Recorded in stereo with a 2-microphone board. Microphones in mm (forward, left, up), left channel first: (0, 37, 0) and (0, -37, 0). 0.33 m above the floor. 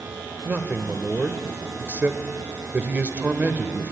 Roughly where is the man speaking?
Right.